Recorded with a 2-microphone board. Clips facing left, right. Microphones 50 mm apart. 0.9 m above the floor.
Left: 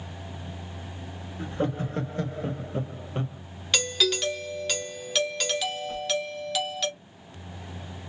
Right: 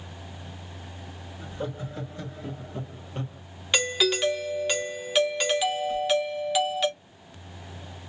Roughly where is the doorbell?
Centre.